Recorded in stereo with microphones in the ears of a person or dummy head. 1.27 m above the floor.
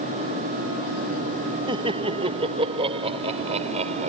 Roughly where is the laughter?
Right.